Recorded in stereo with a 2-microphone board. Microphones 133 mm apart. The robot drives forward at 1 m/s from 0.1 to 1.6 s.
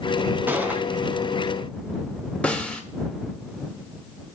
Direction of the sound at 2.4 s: 10° left (ahead or behind).